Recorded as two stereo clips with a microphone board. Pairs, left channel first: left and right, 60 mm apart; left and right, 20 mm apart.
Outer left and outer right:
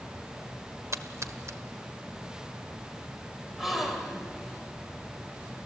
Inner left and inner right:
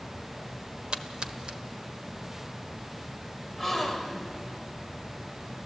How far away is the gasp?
About 2 m.